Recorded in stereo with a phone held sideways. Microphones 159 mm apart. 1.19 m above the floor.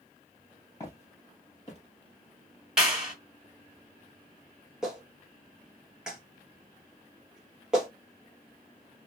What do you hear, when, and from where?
0.8 s footsteps: 20° left (ahead or behind), 2.0 m; by 1.8 s 35° left (ahead or behind), 1.6 m
2.8 s a clap: 5° right (ahead or behind), 1.8 m
4.8 s a clap: 5° right (ahead or behind), 1.2 m